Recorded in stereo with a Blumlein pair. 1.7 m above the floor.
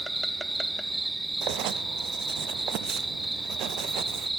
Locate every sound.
0.0 s an insect: 5° right, 0.7 m
1.4 s writing: 40° right, 0.7 m